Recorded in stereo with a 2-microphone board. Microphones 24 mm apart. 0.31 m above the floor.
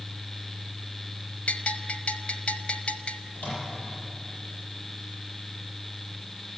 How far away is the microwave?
About 8.5 m.